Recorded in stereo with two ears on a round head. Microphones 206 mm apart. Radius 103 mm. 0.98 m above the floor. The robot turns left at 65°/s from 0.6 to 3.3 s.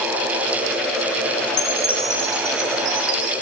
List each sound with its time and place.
1.5 s a chime: 40° left, 2 m; by 3.3 s 80° right, 2 m